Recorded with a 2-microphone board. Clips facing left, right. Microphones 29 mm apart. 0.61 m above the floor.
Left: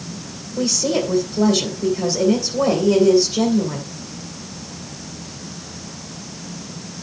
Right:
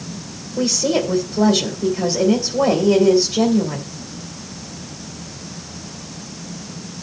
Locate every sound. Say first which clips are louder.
0.6 s a woman speaking: right 1 dB; 15° right (ahead or behind), 2 m